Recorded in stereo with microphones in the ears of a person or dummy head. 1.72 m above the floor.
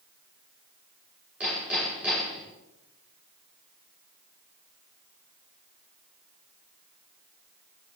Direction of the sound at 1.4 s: 15° right (ahead or behind).